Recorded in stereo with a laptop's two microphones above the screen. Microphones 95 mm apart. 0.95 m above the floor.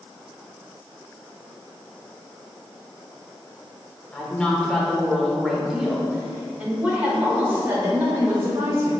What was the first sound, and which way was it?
A woman speaking, 10° left (ahead or behind).